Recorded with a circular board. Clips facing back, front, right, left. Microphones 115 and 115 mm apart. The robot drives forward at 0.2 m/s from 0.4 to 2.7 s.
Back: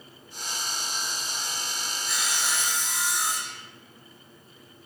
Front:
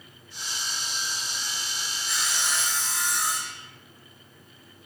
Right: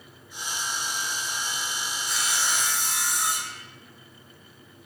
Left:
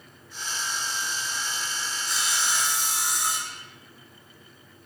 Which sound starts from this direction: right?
Sawing, at 2.1 s.